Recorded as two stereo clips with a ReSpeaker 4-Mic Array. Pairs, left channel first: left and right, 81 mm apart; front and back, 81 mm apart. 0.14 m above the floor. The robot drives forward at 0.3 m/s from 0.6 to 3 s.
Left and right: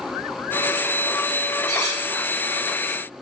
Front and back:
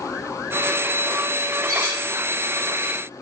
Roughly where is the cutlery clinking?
Behind left.